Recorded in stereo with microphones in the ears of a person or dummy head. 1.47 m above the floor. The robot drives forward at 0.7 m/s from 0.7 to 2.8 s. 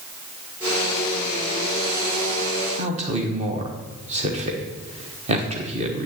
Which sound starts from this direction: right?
A man speaking, at 2.8 s.